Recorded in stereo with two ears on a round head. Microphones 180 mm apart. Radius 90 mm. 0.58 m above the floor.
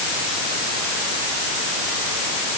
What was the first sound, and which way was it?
Only background noise.